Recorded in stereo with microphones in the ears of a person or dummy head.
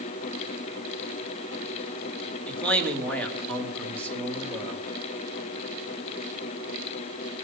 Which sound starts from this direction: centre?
A man speaking, at 2.5 s.